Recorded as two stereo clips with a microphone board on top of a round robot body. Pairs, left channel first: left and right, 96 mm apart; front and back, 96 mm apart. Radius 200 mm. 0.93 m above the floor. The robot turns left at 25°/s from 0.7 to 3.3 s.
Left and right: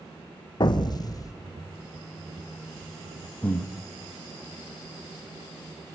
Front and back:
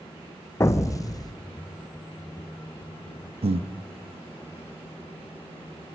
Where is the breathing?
165° left, 1.0 m.